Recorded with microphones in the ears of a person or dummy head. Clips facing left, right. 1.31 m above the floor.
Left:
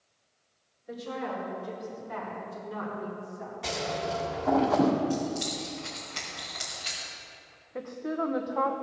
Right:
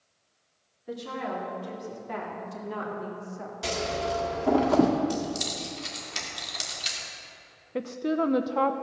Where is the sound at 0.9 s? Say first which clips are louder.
Right 1 dB; 65° right (ahead or behind), 4.5 m; by 3.5 s 70° right (ahead or behind), 3 m.